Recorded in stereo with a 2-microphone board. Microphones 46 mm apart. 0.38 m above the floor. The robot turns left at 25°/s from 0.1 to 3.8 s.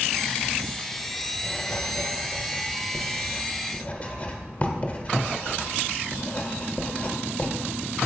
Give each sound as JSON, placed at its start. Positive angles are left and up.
{"t": 1.4, "sound": "writing", "side_deg": 30, "distance_m": 0.9}